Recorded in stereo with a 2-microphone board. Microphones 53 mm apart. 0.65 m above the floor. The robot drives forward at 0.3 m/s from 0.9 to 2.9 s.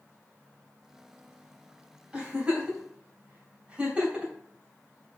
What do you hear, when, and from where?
2.1 s a giggle: 20° right (ahead or behind), 3 m